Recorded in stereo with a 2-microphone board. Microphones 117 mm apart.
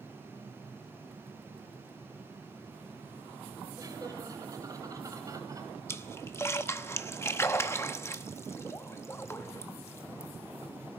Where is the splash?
25° left (ahead or behind), 0.8 m.